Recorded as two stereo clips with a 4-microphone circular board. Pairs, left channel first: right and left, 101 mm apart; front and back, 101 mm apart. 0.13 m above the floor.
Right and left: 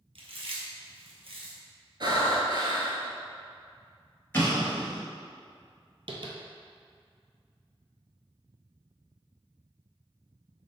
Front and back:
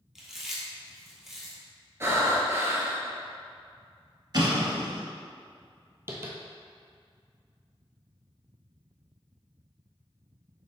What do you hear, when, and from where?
0.1 s chewing: 95° left, 1.2 m
2.0 s breathing: 120° left, 0.8 m
4.3 s an explosion: 155° right, 1.3 m
6.1 s tapping: 120° left, 0.7 m